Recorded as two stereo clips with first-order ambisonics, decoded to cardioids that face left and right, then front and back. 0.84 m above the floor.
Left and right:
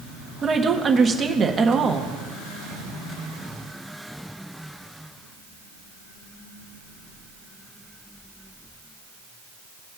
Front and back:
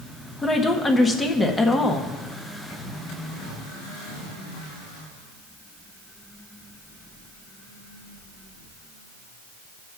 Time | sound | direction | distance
0.4 | a woman speaking | 55° right | 0.7 m